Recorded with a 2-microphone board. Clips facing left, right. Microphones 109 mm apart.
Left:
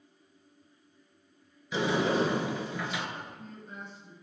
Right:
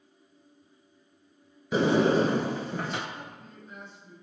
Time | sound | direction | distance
1.7 | a sliding door | 50° right (ahead or behind) | 0.6 m
3.1 | a man speaking | 30° left (ahead or behind) | 2 m